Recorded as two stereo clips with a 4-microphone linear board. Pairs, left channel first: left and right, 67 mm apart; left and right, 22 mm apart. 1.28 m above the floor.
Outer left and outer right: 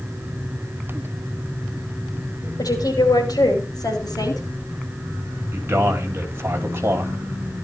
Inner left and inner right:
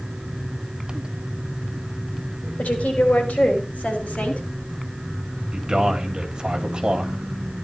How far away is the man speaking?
About 4 m.